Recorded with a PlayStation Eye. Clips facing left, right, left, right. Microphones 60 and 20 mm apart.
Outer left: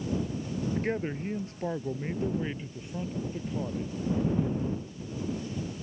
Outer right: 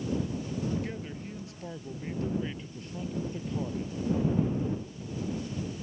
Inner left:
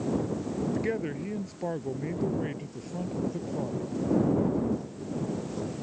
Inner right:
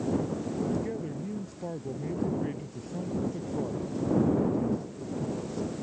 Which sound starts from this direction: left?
A man speaking, at 0.8 s.